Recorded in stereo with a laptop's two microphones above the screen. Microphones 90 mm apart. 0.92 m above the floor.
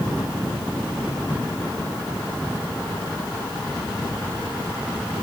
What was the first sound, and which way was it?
Only background noise.